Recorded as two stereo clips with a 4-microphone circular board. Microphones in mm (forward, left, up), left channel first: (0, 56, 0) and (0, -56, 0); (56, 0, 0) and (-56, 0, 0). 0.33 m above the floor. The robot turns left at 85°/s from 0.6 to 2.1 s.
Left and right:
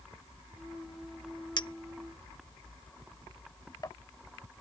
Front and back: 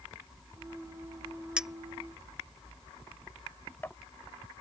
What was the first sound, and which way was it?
A clink, 105° left.